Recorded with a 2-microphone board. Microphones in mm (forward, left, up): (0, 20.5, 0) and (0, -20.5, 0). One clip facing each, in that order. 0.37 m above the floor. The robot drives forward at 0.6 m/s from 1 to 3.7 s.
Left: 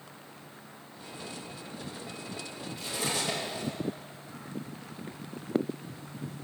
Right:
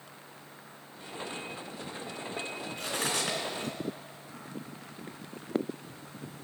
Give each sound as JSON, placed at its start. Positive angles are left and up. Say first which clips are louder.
{"t": 2.8, "sound": "cutlery clinking", "louder": "even", "side_deg": -60, "distance_m": 3.0}